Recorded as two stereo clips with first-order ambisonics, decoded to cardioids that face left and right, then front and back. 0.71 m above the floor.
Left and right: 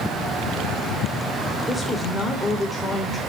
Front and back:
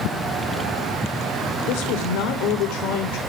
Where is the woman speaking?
Straight ahead, 3 m.